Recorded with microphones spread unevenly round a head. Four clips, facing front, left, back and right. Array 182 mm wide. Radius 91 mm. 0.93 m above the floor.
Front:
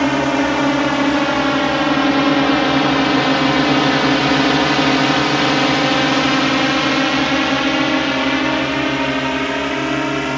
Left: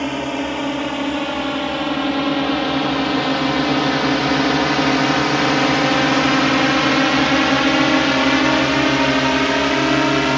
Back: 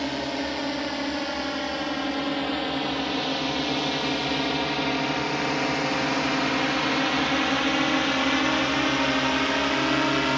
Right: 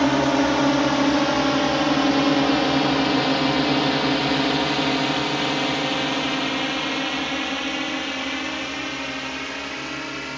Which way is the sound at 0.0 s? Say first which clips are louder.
Right 4 dB, front 13 dB; 20° right.